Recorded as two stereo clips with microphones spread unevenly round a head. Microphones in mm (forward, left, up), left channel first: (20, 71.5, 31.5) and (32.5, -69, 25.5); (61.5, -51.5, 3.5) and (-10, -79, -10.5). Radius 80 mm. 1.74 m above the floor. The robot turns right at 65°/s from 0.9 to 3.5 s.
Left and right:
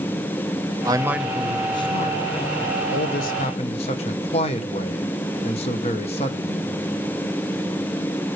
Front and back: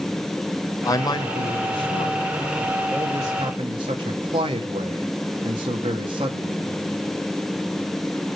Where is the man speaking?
20° right, 1.3 m; by 6.7 s 150° left, 1.3 m.